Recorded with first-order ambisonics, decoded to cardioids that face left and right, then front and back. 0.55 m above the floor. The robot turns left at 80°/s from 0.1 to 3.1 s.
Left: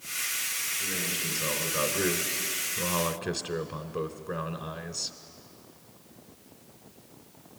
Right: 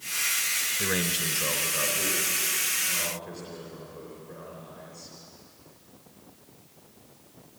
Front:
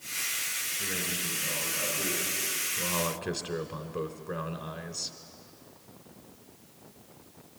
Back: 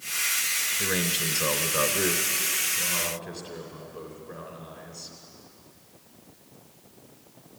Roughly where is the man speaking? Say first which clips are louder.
Right 4 dB, back 6 dB; behind right.